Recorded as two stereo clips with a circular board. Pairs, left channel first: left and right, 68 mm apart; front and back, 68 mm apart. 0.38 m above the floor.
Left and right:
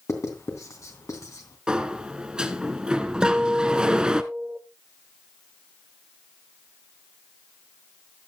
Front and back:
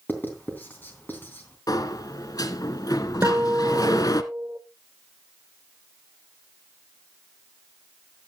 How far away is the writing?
About 3 m.